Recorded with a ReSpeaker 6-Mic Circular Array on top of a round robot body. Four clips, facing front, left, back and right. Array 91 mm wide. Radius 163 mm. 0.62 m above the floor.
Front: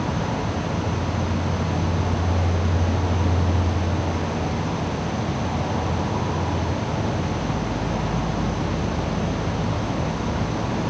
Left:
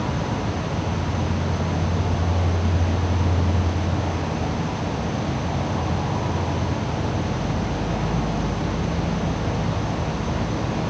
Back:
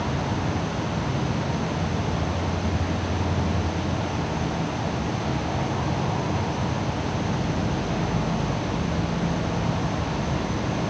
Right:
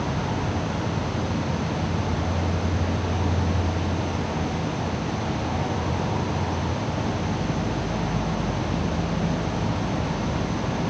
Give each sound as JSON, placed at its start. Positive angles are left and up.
{"t": 0.0, "sound": "an insect", "azimuth_deg": 45, "distance_m": 3.0}